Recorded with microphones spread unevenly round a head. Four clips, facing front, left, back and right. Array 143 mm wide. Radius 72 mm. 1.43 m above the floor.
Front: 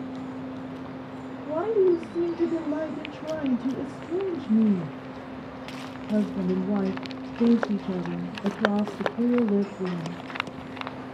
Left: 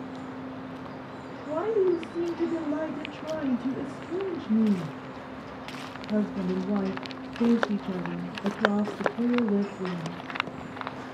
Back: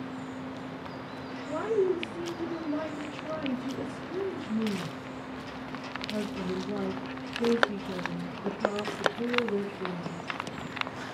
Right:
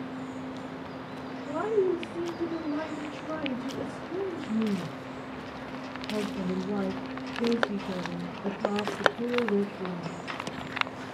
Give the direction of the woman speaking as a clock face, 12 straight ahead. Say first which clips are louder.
Left 2 dB, front 6 dB; 12 o'clock.